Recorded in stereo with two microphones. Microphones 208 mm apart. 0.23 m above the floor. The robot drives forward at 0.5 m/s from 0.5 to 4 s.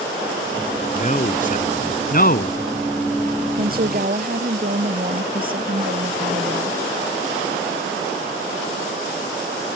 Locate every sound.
0.9 s a man speaking: 35° left (ahead or behind); by 2.6 s 50° left (ahead or behind)
3.6 s a woman speaking: 45° right (ahead or behind)